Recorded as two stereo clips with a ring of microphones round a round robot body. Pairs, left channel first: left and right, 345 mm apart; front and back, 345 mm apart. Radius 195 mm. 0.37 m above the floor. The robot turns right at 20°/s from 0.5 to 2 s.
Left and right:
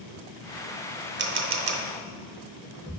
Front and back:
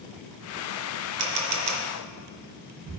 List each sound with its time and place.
1.2 s a camera shutter: 150° right, 0.9 m; by 1.8 s 135° right, 0.9 m